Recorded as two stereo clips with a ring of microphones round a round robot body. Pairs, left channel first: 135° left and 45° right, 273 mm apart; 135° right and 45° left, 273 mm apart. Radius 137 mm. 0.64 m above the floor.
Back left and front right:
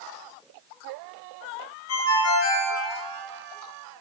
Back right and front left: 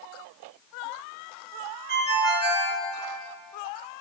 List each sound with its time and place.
1.9 s a ringtone: 100° left, 3.5 m